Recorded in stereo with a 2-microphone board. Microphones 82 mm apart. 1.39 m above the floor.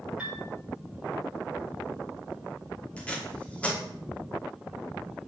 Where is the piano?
15° right (ahead or behind), 9 m.